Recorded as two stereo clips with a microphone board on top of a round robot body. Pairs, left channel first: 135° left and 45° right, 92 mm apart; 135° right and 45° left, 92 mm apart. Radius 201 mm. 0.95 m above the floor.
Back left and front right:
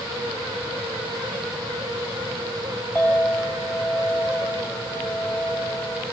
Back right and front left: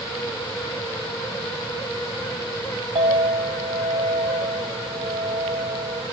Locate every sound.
3.0 s a clink: 60° left, 4.5 m